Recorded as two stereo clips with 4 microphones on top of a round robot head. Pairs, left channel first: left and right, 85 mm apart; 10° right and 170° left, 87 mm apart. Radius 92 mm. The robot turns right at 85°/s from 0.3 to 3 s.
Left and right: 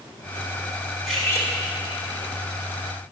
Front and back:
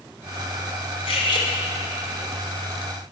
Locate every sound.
1.1 s cutlery clinking: straight ahead, 1.3 m; by 1.5 s 40° left, 1.3 m